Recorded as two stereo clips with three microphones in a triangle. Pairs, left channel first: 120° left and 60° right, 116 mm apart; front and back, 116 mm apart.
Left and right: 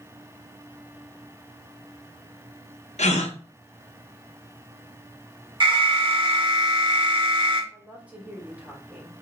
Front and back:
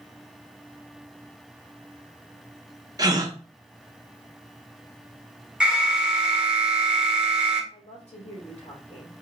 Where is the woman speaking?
15° left, 2 m.